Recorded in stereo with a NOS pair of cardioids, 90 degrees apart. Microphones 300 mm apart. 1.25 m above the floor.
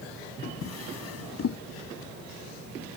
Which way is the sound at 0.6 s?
55° left.